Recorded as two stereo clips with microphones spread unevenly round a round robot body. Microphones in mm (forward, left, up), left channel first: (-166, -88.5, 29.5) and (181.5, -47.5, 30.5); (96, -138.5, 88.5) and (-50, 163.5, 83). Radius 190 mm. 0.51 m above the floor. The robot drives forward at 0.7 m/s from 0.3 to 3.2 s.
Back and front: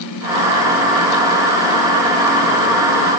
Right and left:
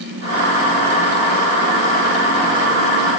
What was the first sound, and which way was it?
Only background noise.